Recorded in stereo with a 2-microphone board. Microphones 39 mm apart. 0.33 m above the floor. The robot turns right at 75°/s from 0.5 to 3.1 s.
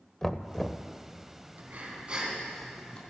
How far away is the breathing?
About 3 m.